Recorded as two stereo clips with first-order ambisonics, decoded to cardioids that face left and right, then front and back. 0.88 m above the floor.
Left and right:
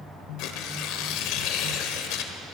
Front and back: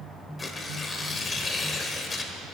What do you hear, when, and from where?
0.4 s tearing paper: 75° left, 1.2 m